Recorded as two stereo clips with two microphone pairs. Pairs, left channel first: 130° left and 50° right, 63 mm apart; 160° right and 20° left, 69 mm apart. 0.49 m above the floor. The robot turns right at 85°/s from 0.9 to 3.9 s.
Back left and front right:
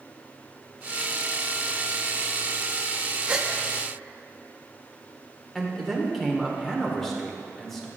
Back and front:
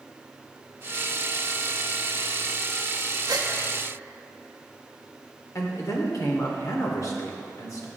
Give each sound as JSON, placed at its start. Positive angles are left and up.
{"t": 3.3, "sound": "a gasp", "azimuth_deg": 20, "distance_m": 0.5}
{"t": 5.5, "sound": "a man speaking", "azimuth_deg": -150, "distance_m": 1.1}